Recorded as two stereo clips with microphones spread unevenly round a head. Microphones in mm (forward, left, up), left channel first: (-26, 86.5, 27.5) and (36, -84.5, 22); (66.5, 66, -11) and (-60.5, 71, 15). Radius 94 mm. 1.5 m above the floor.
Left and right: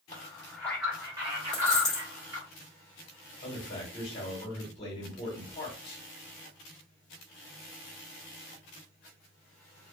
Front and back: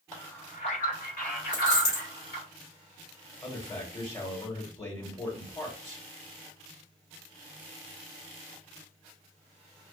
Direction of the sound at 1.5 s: 30° left.